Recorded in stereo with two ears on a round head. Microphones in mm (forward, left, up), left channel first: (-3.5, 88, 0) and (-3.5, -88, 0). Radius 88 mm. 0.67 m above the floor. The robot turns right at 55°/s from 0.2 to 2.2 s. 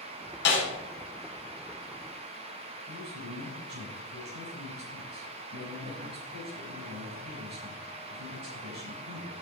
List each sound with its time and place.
0.5 s a snare drum: 60° left (ahead or behind), 4.5 m; by 0.7 s 70° left (ahead or behind), 4.5 m
2.9 s a man speaking: 55° right (ahead or behind), 6 m